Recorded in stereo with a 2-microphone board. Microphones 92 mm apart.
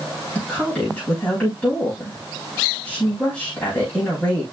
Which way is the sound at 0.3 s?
10° left (ahead or behind).